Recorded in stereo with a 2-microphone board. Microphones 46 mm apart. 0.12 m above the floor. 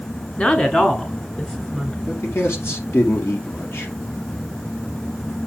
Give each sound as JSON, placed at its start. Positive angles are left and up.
{"t": 0.4, "sound": "a woman speaking", "side_deg": 25, "distance_m": 1.3}
{"t": 2.1, "sound": "a man speaking", "side_deg": 60, "distance_m": 3.5}